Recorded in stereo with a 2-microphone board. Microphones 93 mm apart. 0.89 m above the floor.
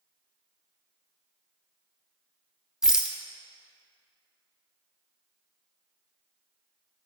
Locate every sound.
2.8 s a rattle: 5° right (ahead or behind), 0.5 m